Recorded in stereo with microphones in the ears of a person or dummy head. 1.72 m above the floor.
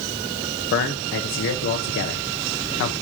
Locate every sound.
0.7 s a man speaking: 45° left (ahead or behind), 0.8 m